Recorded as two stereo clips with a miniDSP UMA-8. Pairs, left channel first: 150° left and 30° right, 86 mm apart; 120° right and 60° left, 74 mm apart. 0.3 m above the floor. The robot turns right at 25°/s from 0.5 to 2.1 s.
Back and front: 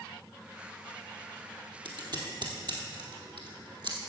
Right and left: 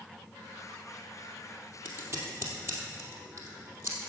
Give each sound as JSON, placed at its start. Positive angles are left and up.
{"t": 1.9, "sound": "scissors", "azimuth_deg": 0, "distance_m": 2.5}